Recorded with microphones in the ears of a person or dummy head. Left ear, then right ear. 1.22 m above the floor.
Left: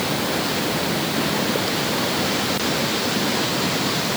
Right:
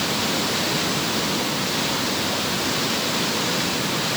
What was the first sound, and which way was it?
Only background noise.